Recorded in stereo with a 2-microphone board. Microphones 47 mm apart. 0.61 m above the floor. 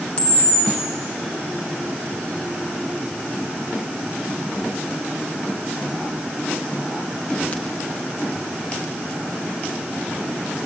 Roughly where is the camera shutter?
Left.